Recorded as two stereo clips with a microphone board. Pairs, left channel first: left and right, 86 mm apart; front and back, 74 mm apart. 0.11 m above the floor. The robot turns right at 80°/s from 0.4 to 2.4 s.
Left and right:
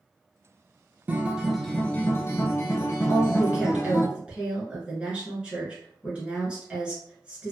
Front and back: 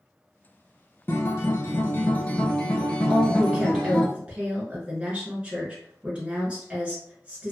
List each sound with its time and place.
1.1 s a guitar: 35° right, 0.5 m; by 4.1 s 70° left, 0.5 m
3.1 s a woman speaking: 140° right, 1.3 m